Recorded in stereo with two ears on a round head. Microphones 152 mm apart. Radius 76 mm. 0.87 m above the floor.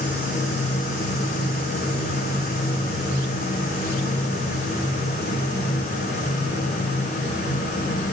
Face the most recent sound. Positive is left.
No sound to turn to.